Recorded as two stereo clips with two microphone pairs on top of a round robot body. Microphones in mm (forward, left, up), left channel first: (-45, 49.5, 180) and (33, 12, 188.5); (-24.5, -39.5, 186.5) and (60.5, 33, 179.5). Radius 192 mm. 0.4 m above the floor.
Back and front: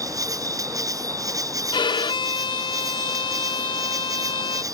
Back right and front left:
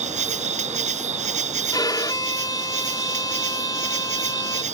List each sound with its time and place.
0.0 s an insect: 25° left
1.7 s a violin: 165° left